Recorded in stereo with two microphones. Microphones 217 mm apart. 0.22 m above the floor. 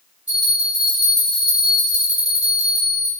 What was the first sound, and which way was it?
A bell, 35° left (ahead or behind).